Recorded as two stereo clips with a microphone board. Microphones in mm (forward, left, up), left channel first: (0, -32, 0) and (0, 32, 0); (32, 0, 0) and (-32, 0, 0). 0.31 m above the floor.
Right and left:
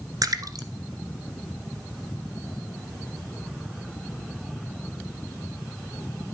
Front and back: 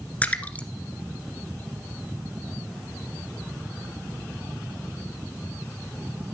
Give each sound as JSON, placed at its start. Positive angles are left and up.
{"t": 0.2, "sound": "a splash", "azimuth_deg": 70, "distance_m": 1.5}